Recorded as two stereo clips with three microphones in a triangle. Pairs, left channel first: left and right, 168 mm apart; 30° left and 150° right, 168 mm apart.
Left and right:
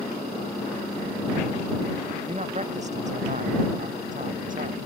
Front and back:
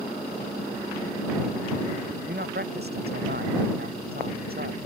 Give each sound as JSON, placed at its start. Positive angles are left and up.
{"t": 2.3, "sound": "a man speaking", "azimuth_deg": -140}